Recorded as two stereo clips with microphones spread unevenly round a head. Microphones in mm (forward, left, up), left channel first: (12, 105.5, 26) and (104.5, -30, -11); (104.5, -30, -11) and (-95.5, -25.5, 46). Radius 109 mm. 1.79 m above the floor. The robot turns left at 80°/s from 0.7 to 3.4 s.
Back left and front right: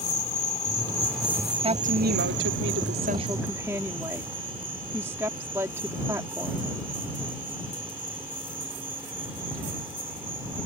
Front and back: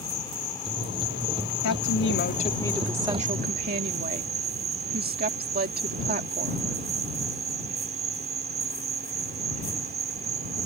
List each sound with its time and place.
0.0 s an insect: 75° left; by 10.7 s 140° right
1.6 s a woman speaking: straight ahead; by 6.7 s 140° right